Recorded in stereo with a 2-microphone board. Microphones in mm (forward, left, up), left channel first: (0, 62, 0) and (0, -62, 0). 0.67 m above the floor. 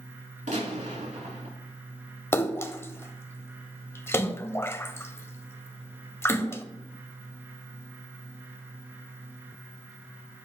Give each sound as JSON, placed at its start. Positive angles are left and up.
{"t": 0.5, "sound": "a gunshot", "side_deg": -75, "distance_m": 4.0}
{"t": 2.3, "sound": "a splash", "side_deg": 20, "distance_m": 0.8}